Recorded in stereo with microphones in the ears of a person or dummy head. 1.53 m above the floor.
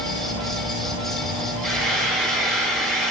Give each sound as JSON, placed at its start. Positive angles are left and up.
{"t": 1.6, "sound": "frying", "side_deg": -20, "distance_m": 2.5}